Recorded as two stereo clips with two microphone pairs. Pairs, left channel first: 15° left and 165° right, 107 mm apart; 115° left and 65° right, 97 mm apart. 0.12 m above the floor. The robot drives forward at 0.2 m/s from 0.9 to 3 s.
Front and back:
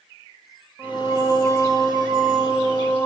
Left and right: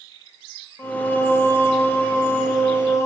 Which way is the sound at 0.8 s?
165° left.